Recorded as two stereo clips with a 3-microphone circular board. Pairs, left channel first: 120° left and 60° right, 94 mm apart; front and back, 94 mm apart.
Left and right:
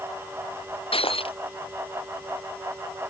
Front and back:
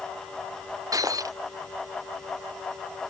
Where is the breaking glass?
130° left.